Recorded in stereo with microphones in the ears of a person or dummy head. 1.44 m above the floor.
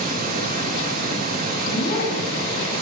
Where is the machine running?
45° right (ahead or behind), 1.4 m.